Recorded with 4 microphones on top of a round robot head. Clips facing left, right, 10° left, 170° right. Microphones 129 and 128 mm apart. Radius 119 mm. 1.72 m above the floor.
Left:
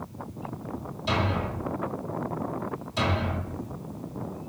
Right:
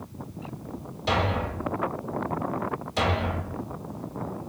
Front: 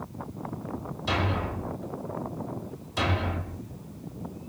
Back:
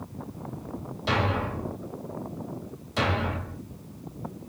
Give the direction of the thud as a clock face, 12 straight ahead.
5 o'clock.